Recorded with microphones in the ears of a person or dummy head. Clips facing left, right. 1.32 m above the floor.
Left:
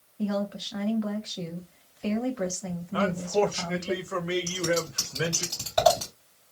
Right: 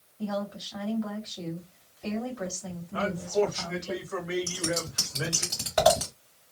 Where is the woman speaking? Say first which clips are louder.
Left 3 dB; 40° left (ahead or behind), 0.9 m.